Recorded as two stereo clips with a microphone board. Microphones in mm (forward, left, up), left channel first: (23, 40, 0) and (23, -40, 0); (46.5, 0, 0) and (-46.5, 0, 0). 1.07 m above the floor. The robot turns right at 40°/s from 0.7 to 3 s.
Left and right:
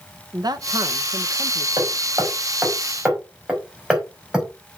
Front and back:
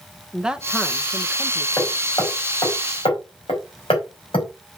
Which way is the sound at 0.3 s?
100° right.